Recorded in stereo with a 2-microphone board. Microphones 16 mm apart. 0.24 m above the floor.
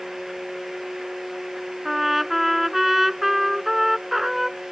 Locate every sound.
1.9 s a trumpet: 15° right (ahead or behind)